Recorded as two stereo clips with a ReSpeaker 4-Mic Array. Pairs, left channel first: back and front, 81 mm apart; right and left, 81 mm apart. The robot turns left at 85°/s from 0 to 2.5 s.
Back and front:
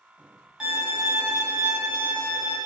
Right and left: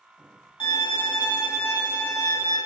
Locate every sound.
0.6 s a violin: 80° right, 0.8 m; by 2.6 s 115° left, 0.8 m